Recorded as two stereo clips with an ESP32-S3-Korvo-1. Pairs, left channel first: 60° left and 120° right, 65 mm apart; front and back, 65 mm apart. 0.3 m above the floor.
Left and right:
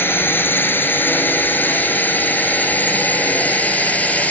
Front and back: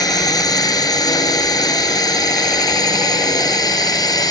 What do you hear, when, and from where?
0.0 s a drone: 5° left; by 4.3 s 10° right